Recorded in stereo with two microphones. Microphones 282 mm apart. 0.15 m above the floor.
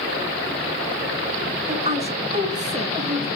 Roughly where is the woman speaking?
Right.